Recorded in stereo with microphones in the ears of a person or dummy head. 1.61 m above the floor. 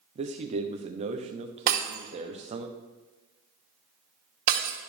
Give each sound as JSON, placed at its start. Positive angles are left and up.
{"t": 0.1, "sound": "a man speaking", "side_deg": -35, "distance_m": 0.9}
{"t": 1.7, "sound": "breaking glass", "side_deg": -50, "distance_m": 1.8}